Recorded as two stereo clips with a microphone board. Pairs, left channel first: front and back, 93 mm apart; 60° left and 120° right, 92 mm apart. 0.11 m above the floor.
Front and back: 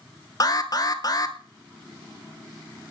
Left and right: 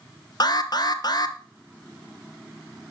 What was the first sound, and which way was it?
An alarm, 30° left.